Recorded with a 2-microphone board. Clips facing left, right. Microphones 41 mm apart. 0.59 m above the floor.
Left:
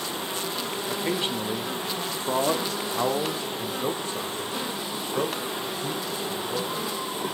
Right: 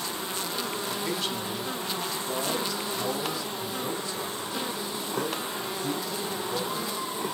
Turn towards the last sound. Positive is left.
turn(degrees=30)  # may be behind; listen again after turning